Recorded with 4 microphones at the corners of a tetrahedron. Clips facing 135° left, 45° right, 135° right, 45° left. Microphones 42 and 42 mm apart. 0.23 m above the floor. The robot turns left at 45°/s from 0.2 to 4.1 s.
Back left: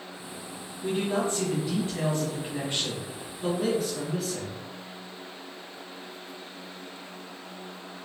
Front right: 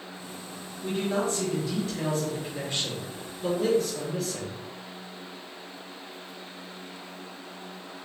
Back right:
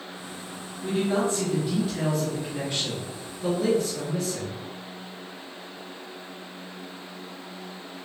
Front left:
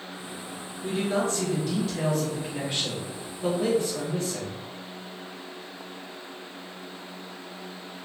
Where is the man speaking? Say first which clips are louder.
Even, back right 2 dB; 160° right, 1.5 m; by 4.5 s 50° left, 1.5 m.